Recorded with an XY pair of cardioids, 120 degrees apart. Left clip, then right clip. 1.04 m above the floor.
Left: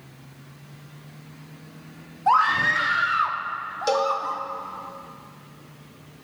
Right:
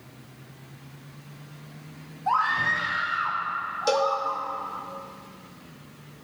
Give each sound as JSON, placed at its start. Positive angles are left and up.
{"t": 2.3, "sound": "a scream", "azimuth_deg": 40, "distance_m": 1.6}
{"t": 3.9, "sound": "a cowbell", "azimuth_deg": 0, "distance_m": 1.5}